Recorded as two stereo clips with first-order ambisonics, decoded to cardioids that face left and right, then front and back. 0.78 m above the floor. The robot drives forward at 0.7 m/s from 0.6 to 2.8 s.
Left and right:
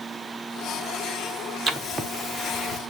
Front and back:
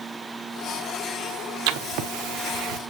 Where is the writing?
160° right, 0.8 m; by 2.8 s 170° right, 1.6 m.